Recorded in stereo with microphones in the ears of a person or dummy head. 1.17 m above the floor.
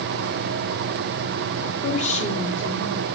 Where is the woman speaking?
35° left (ahead or behind), 2 m.